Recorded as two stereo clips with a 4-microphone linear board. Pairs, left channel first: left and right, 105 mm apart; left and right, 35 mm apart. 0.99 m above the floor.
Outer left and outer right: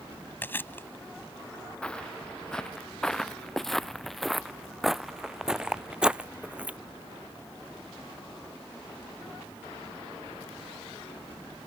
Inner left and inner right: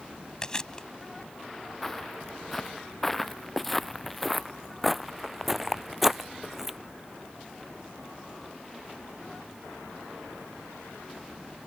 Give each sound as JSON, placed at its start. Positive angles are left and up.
{"t": 0.4, "sound": "chewing", "side_deg": 20}
{"t": 1.8, "sound": "footsteps", "side_deg": 10}